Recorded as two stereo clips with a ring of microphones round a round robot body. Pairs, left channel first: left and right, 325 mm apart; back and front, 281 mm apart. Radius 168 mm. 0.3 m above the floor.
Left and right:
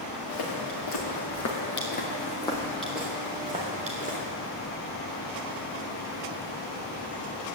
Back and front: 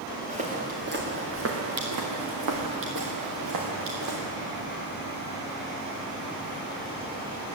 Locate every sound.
0.3 s footsteps: 65° left, 3.5 m; by 4.3 s 25° right, 4 m